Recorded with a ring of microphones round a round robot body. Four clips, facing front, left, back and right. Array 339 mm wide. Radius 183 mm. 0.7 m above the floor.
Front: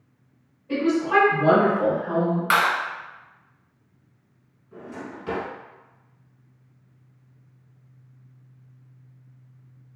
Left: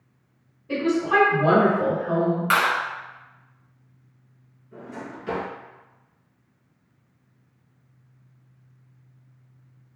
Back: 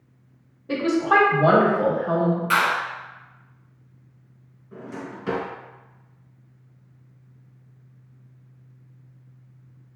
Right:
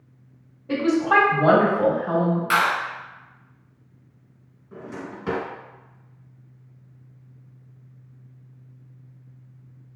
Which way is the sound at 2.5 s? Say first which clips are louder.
Right 1 dB, front 3 dB; 30° left.